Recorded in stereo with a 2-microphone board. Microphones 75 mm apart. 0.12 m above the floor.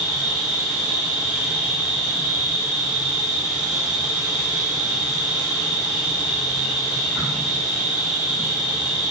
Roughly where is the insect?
Centre.